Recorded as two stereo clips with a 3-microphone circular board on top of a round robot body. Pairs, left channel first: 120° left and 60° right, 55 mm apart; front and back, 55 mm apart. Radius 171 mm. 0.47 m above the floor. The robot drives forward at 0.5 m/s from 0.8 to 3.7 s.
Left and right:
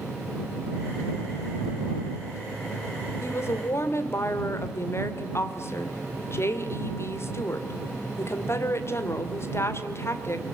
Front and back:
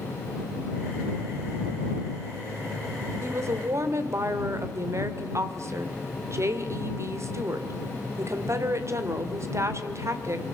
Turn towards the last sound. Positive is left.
turn(degrees=155)